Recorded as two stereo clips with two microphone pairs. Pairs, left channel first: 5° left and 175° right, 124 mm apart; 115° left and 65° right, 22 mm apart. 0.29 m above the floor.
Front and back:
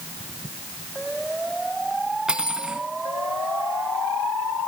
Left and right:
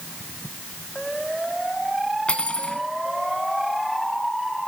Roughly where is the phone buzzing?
No phone buzzing in this recording.